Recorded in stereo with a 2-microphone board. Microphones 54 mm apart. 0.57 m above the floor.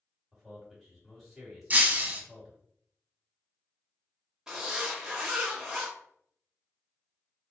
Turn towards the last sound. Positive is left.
turn(degrees=-10)  # may be behind; listen again after turning